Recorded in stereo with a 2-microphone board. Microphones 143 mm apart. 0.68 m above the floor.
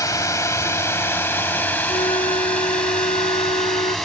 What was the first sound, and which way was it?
A drone, 20° left (ahead or behind).